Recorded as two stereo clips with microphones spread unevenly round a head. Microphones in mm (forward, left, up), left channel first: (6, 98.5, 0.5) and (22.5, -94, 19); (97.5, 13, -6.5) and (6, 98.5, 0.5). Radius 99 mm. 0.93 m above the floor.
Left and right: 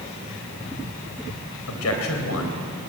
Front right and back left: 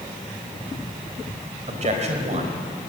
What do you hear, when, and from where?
1.7 s a man speaking: 105° left, 3.5 m; by 2.9 s 120° left, 4 m